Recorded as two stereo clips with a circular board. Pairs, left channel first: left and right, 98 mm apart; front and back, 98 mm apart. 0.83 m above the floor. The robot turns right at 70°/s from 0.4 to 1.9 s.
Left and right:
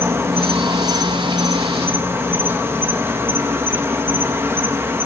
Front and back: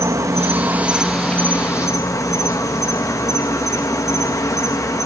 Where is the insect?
140° right, 0.9 m; by 5.1 s 35° right, 0.9 m.